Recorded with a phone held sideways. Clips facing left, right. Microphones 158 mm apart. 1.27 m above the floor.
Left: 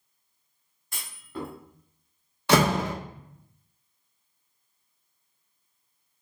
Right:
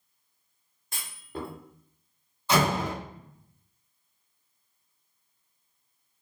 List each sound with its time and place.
0.9 s a clunk: 25° right (ahead or behind), 1.9 m
2.5 s a door slam: 75° left (ahead or behind), 1.0 m